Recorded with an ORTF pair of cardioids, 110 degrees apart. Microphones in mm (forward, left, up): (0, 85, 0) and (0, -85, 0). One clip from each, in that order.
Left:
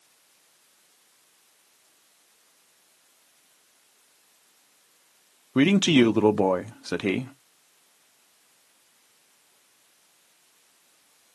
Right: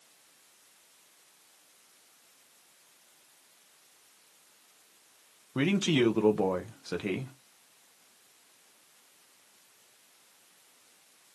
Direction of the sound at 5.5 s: 35° left.